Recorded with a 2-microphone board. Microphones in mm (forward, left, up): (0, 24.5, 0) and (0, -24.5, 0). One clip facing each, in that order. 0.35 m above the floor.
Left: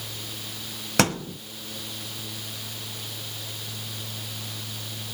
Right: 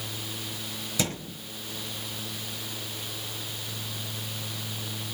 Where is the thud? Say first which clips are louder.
Left 9 dB; 75° left (ahead or behind), 2.0 m.